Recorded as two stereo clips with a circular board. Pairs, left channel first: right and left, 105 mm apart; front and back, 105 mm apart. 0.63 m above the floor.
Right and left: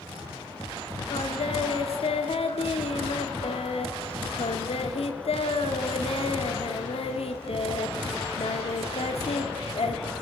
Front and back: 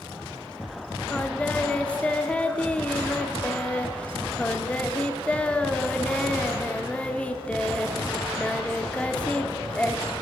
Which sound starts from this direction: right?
Singing, at 1.1 s.